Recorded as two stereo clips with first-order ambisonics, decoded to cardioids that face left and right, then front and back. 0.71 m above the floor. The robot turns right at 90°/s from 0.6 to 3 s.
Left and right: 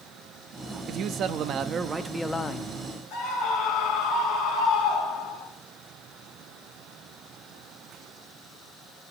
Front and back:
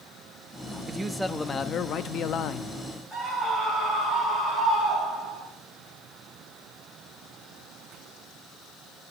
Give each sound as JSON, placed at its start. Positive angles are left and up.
{"t": 0.9, "sound": "a man speaking", "azimuth_deg": -120, "distance_m": 0.6}
{"t": 3.1, "sound": "a scream", "azimuth_deg": 80, "distance_m": 3.0}